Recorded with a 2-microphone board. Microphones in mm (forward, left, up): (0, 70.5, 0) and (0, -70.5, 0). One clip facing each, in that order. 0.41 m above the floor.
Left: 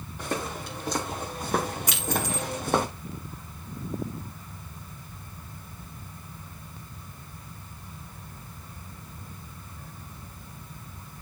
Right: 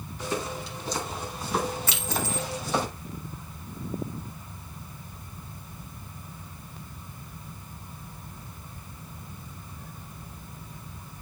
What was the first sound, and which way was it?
Footsteps, 55° left (ahead or behind).